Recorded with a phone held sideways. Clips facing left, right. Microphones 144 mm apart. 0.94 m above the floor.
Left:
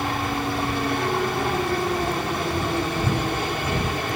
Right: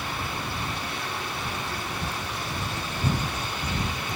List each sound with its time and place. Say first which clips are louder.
0.0 s a helicopter: left 8 dB; 60° left (ahead or behind)